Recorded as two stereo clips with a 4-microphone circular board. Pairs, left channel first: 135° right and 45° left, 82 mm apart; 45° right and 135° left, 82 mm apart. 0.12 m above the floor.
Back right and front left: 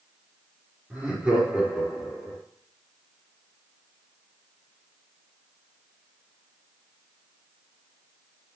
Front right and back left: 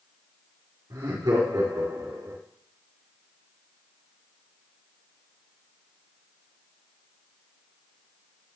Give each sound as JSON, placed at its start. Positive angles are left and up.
{"t": 0.9, "sound": "laughter", "azimuth_deg": 110, "distance_m": 4.5}